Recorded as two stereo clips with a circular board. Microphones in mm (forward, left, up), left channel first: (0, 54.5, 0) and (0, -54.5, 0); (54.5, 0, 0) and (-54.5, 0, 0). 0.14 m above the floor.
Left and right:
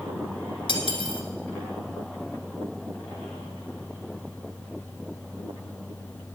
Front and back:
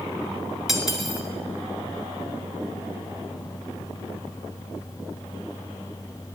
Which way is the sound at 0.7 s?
90° left.